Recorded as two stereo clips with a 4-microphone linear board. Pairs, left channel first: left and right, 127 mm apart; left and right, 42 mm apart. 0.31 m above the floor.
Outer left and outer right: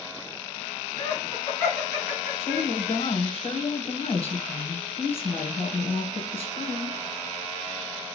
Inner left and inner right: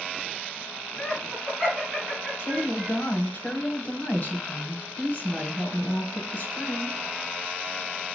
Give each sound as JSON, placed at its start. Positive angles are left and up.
{"t": 1.0, "sound": "laughter", "side_deg": 30, "distance_m": 4.0}
{"t": 2.4, "sound": "a woman speaking", "side_deg": 50, "distance_m": 2.0}